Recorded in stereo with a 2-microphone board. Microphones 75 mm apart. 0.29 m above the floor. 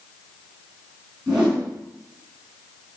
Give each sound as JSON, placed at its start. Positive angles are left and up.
{"t": 1.3, "sound": "a whoosh", "side_deg": -10, "distance_m": 3.0}